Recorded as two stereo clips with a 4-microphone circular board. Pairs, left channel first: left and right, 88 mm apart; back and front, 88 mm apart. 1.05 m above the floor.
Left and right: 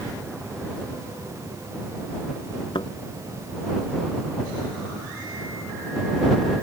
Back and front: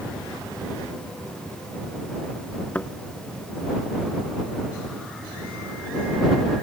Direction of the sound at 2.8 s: 110° left.